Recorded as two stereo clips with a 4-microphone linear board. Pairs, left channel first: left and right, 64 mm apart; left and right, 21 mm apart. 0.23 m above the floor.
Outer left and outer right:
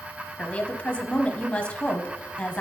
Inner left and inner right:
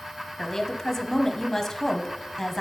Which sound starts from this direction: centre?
A woman speaking, at 0.4 s.